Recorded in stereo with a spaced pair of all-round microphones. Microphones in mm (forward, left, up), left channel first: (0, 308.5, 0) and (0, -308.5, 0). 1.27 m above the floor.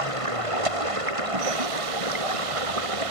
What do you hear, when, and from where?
0.0 s running water: 60° right (ahead or behind)